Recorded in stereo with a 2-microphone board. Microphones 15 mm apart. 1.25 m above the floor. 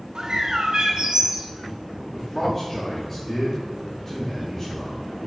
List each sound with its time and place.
0.1 s a bird: 50° right (ahead or behind), 1.1 m
2.0 s a man speaking: 15° left (ahead or behind), 1.7 m